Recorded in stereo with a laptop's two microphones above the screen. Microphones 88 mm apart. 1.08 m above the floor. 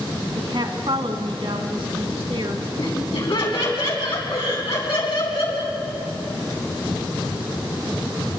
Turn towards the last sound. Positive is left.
turn(degrees=75)  # may be behind; listen again after turning